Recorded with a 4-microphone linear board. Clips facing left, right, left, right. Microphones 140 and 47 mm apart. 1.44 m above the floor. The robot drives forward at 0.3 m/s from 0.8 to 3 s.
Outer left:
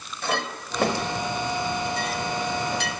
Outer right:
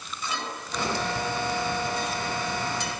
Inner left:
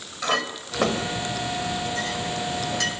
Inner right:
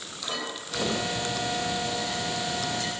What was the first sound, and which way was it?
A clink, 60° left (ahead or behind).